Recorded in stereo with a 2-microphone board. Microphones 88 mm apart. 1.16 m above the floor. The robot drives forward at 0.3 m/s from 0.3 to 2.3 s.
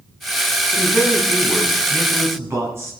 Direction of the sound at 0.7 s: 30° right (ahead or behind).